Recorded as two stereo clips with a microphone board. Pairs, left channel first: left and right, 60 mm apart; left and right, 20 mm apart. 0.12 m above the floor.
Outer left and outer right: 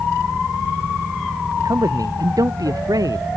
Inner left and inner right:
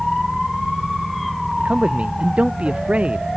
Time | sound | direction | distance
1.6 | a man speaking | 75° right (ahead or behind) | ?